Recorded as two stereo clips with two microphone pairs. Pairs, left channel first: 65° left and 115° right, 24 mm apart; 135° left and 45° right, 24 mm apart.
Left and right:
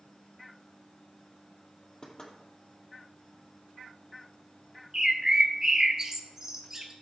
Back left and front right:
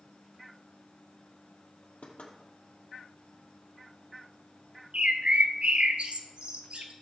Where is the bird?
50° right, 1.3 m.